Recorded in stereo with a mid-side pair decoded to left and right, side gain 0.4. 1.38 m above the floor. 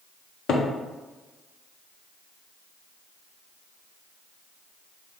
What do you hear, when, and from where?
0.5 s a cupboard door: 70° left, 0.5 m